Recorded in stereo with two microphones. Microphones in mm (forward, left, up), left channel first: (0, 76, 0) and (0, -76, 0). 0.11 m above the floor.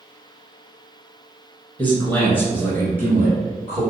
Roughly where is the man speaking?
Centre.